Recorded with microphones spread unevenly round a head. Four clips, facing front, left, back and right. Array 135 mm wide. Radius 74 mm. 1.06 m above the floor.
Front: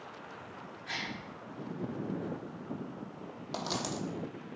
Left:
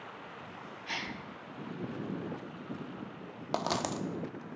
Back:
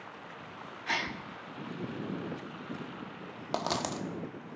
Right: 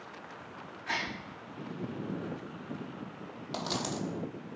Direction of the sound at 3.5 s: 130° left.